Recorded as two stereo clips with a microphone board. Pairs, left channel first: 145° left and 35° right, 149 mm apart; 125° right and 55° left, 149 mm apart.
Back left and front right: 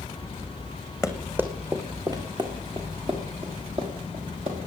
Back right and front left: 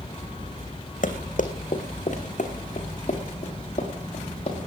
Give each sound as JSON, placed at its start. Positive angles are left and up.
{"t": 1.0, "sound": "running footsteps", "azimuth_deg": -120, "distance_m": 1.9}